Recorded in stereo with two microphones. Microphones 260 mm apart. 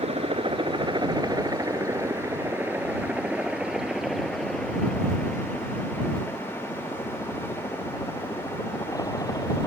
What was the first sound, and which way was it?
A helicopter, 20° right (ahead or behind).